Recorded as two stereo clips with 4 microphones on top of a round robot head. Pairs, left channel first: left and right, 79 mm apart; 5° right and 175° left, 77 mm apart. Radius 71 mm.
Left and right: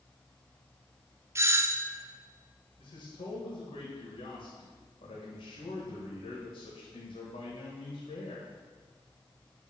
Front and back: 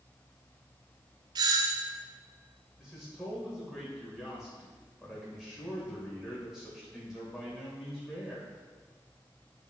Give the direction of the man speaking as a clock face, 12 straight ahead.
9 o'clock.